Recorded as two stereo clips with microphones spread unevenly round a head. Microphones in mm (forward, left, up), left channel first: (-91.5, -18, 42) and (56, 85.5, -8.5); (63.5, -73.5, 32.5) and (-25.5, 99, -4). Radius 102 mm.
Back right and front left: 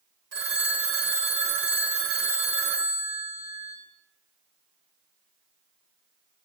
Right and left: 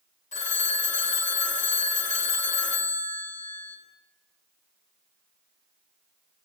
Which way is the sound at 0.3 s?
10° right.